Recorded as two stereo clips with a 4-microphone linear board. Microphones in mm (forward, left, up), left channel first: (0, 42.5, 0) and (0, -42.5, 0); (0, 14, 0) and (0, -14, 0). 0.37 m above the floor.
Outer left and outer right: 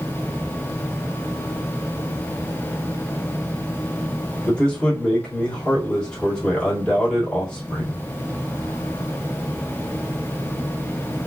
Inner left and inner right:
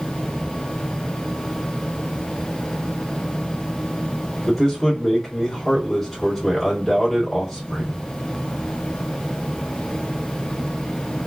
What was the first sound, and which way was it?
A man speaking, 10° left (ahead or behind).